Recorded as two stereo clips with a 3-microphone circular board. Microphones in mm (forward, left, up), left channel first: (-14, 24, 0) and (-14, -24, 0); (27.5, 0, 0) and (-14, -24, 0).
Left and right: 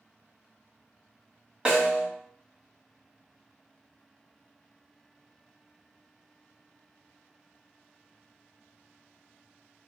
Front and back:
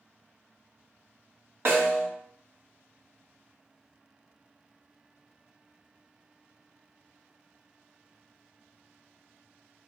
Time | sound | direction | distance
1.6 | a snare drum | 155° right | 1.4 m